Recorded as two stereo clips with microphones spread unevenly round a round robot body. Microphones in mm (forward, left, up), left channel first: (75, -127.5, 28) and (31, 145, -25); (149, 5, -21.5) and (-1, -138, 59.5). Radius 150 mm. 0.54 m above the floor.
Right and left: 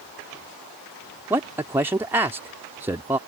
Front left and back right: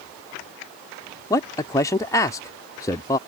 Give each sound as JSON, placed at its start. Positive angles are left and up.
{"t": 1.3, "sound": "a man speaking", "azimuth_deg": 40}